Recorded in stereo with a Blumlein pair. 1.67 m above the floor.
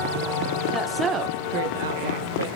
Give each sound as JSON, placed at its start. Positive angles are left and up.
{"t": 0.7, "sound": "a woman speaking", "azimuth_deg": 10, "distance_m": 0.6}